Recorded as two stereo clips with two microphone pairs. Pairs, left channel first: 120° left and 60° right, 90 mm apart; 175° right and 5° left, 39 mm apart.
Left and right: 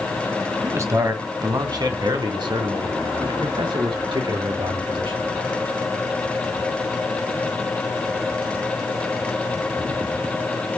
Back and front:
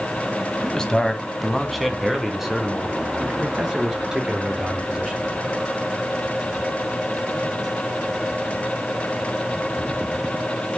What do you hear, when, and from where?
0.6 s a man speaking: 115° right, 1.6 m; by 5.2 s 65° right, 5 m